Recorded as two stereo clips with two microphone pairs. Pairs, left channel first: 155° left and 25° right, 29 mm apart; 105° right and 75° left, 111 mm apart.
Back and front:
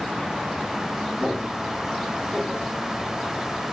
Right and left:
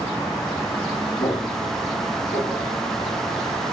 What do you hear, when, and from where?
1.2 s footsteps: 105° right, 2 m; by 3.2 s 75° right, 2.0 m